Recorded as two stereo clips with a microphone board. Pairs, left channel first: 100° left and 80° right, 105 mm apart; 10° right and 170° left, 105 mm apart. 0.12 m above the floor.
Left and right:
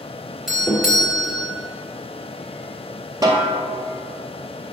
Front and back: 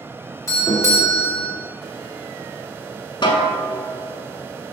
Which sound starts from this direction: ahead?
A doorbell, at 0.5 s.